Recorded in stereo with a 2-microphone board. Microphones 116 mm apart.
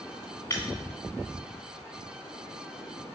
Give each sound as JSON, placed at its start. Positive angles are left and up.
{"t": 0.5, "sound": "breaking glass", "side_deg": 25, "distance_m": 2.5}